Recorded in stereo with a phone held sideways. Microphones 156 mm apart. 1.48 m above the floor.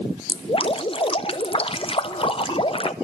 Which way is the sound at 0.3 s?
35° left (ahead or behind).